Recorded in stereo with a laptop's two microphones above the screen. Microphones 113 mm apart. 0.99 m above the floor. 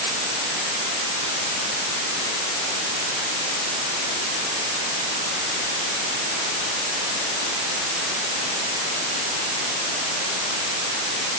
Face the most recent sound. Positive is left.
No sound to turn to.